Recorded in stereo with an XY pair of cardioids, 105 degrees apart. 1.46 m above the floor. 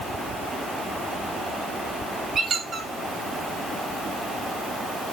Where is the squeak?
45° right, 1.8 m.